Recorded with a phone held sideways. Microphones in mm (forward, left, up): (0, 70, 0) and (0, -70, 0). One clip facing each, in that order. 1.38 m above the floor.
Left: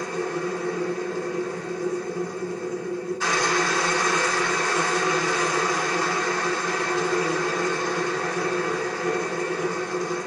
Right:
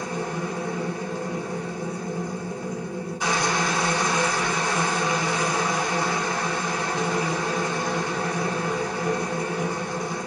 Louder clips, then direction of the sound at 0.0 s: Left 2 dB; 15° right (ahead or behind).